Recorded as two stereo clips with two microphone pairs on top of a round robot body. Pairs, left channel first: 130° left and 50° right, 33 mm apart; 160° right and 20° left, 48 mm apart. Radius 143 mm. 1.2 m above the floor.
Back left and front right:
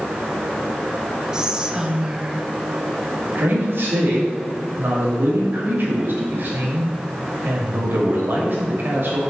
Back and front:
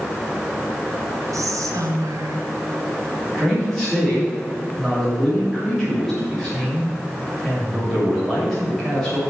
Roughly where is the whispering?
Ahead.